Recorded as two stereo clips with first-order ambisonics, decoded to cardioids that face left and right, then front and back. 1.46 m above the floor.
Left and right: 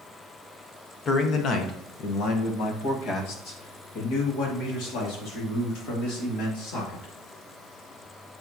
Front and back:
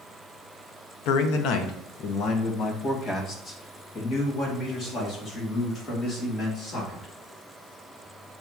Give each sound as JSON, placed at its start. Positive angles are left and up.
{"t": 1.1, "sound": "a man speaking", "azimuth_deg": 25, "distance_m": 0.8}